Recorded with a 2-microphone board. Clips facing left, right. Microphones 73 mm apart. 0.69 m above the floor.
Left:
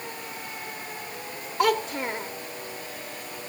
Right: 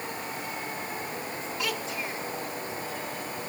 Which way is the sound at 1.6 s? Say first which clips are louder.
Left 11 dB; 60° left (ahead or behind).